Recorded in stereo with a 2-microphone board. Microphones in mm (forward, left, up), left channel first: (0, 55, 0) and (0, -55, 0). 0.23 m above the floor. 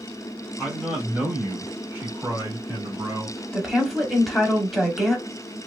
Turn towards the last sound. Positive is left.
turn(degrees=0)  # may be behind; listen again after turning